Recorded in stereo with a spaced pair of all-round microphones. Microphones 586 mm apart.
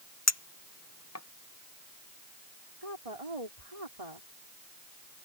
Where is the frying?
No frying in this recording.